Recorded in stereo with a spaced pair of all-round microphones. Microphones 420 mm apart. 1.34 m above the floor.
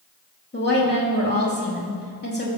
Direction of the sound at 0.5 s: 25° left (ahead or behind).